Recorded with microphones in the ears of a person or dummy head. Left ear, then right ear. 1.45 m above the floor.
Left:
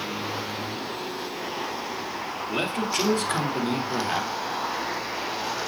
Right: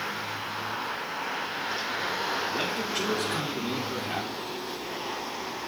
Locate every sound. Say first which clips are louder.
2.5 s a man speaking: left 2 dB; 70° left (ahead or behind), 2.5 m; by 4.3 s 80° left, 3 m